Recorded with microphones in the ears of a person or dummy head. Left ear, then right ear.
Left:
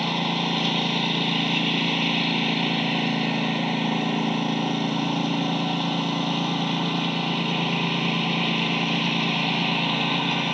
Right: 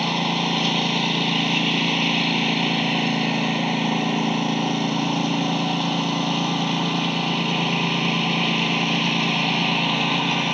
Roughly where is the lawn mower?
Centre.